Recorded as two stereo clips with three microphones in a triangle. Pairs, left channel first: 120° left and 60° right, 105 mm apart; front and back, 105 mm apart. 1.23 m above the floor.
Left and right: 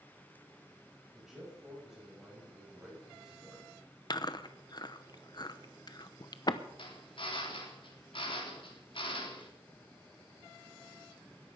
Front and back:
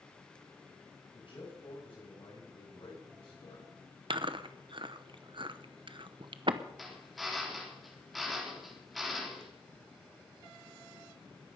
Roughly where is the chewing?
Behind.